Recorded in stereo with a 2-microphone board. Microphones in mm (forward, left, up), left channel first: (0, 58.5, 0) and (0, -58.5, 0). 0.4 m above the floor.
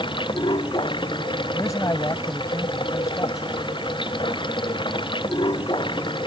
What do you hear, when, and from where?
0.0 s running water: 45° left (ahead or behind)
1.5 s a man speaking: 30° left (ahead or behind)